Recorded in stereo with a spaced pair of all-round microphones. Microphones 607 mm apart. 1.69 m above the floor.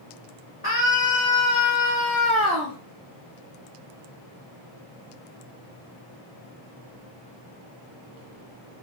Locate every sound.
0.6 s a scream: 15° left (ahead or behind), 4 m; by 2.8 s 5° right (ahead or behind), 4 m